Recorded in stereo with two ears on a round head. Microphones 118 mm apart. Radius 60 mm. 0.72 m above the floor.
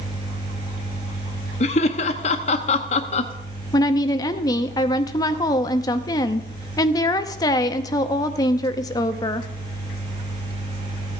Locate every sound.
1.6 s laughter: 50° left (ahead or behind), 0.7 m
3.7 s a woman speaking: 30° left (ahead or behind), 0.7 m